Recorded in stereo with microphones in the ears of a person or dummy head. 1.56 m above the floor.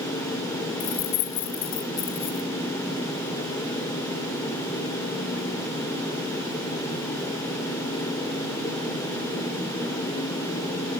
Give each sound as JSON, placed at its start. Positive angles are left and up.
{"t": 0.8, "sound": "keys jangling", "side_deg": 40, "distance_m": 0.9}